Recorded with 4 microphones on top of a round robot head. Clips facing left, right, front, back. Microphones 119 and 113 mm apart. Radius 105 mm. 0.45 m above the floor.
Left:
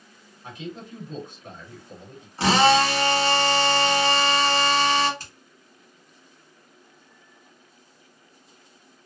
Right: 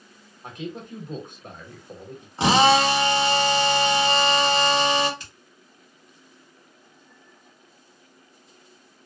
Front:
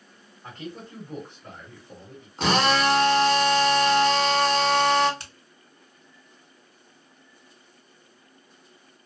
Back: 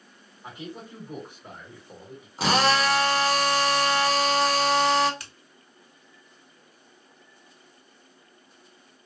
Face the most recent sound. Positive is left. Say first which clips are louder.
# left 1 dB, front 1 dB
turn(degrees=55)